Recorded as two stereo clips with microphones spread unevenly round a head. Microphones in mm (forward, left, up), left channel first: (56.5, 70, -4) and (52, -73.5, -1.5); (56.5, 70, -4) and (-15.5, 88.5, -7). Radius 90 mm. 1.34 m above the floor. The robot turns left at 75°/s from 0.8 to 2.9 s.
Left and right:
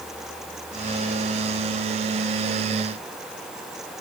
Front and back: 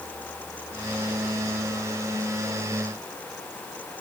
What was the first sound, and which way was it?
Only background noise.